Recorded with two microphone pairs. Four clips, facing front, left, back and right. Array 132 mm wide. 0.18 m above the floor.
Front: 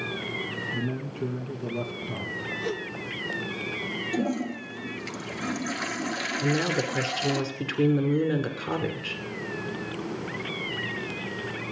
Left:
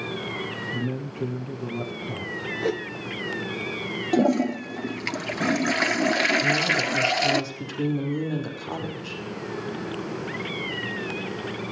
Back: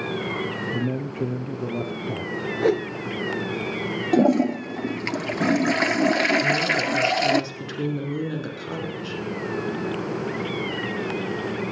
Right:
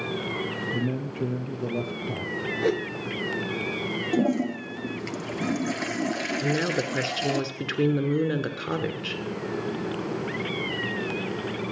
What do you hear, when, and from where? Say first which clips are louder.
0.7 s a man speaking: right 1 dB, back 4 dB; 160° right, 3 m
2.6 s a whoosh: right 2 dB, back 12 dB; 165° right, 0.6 m
4.1 s a toilet flushing: left 4 dB, back 11 dB; 150° left, 0.5 m
6.4 s a woman speaking: left 1 dB, back 3 dB; 75° right, 2 m